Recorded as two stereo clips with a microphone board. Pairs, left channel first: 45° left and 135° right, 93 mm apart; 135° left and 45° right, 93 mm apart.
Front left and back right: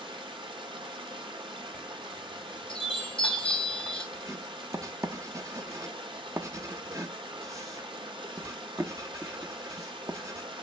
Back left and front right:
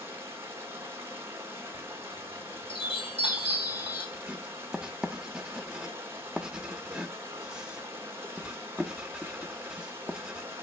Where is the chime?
125° left, 3.5 m.